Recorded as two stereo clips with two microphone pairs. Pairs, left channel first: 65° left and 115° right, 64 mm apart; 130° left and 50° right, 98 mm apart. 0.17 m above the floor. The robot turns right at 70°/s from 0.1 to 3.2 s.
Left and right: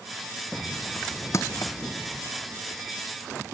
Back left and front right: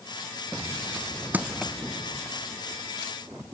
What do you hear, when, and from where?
1.3 s crushing: 20° left; by 1.7 s 50° left